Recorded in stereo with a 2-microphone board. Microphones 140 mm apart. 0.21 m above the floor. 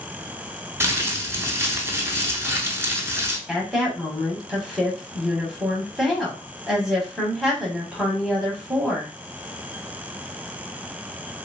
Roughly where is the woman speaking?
Centre.